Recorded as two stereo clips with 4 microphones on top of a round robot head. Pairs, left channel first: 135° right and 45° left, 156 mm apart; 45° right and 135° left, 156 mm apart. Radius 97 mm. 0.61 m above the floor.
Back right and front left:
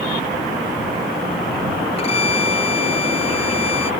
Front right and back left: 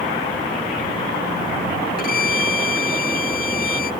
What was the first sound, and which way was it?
A violin, 75° right.